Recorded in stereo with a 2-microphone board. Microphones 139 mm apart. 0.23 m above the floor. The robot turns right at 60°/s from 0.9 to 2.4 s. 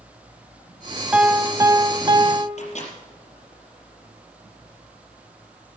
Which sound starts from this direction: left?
A microwave, at 2.6 s.